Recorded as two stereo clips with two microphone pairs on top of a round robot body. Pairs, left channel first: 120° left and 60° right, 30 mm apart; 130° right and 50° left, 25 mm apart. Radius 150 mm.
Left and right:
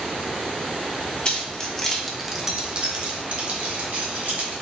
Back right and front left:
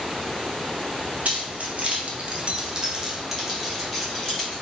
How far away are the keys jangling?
About 1.0 m.